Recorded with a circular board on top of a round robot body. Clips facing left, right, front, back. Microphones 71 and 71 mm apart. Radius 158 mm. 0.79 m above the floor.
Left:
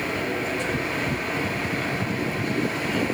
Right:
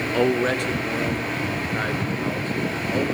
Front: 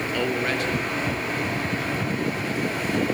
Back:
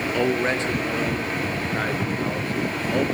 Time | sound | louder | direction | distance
0.1 | a man speaking | right 6 dB, back 3 dB | 105° right | 2 m